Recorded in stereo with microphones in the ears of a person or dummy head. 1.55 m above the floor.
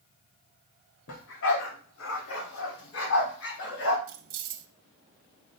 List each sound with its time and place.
1.1 s a dog barking: 65° left (ahead or behind), 2.5 m; by 4.0 s 75° left (ahead or behind), 4.5 m
4.1 s keys jangling: 50° right (ahead or behind), 1.1 m